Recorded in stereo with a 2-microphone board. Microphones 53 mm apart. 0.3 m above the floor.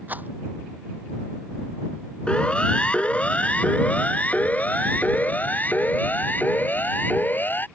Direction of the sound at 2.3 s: 20° left (ahead or behind).